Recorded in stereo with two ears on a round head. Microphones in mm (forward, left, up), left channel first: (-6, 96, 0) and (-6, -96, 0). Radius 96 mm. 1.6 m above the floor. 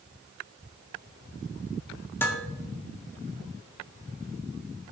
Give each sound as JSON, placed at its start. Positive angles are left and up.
{"t": 2.2, "sound": "dishes clattering", "side_deg": 10, "distance_m": 1.7}